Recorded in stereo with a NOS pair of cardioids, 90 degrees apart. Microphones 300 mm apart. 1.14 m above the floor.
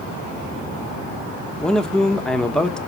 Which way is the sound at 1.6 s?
Straight ahead.